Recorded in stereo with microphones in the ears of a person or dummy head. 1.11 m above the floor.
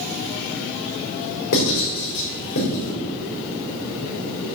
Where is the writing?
65° left (ahead or behind), 3.5 m.